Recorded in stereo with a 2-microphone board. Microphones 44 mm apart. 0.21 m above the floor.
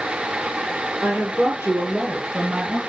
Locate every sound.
1.0 s a woman speaking: 45° right (ahead or behind), 3.5 m; by 2.8 s 25° right (ahead or behind), 4 m